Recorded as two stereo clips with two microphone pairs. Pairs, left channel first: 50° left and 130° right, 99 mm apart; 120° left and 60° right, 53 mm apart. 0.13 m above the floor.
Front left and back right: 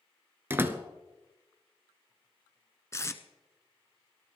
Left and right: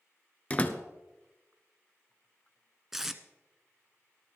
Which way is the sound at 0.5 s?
175° left.